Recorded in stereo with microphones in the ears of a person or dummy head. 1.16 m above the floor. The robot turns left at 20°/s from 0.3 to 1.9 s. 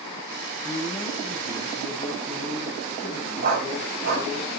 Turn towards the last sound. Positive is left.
turn(degrees=-45)  # may be behind; listen again after turning